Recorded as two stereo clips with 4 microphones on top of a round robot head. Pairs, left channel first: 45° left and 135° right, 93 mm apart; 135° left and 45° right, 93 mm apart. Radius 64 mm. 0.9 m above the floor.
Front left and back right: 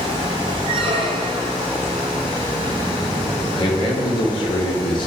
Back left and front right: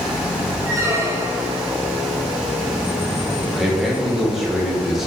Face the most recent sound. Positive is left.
turn(degrees=45)